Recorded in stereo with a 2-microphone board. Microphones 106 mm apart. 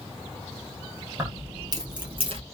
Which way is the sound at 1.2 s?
25° right (ahead or behind).